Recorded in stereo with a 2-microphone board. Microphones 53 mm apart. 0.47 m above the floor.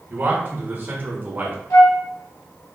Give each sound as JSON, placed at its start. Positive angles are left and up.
{"t": 0.1, "sound": "a man speaking", "side_deg": -40, "distance_m": 1.5}
{"t": 1.7, "sound": "a flute", "side_deg": 75, "distance_m": 2.5}